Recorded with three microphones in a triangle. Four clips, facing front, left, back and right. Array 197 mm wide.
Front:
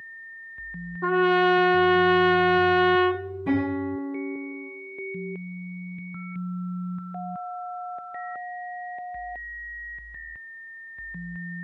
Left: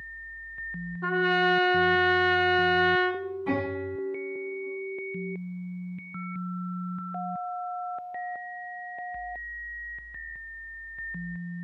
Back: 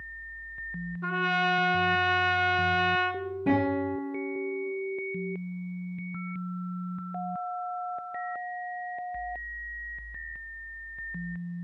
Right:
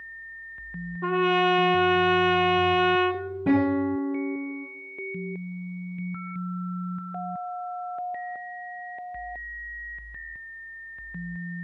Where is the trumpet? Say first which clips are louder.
Right 2 dB, front 8 dB; 25° right, 1.2 m.